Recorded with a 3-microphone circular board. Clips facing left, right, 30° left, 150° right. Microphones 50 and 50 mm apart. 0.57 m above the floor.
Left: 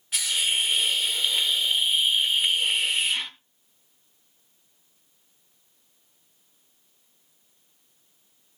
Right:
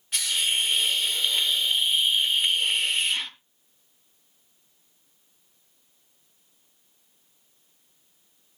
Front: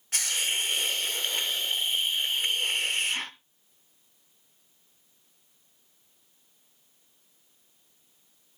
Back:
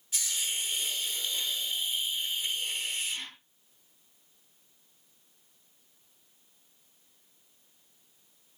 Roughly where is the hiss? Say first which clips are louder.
Even, front 6 dB; ahead.